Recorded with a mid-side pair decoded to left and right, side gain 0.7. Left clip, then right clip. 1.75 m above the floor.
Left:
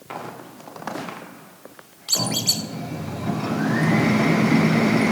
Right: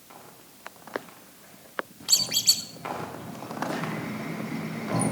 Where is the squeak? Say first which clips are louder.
Left 1 dB; straight ahead, 3.5 m.